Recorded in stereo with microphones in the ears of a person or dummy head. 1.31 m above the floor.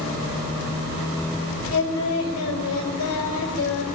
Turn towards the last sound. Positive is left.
turn(degrees=80)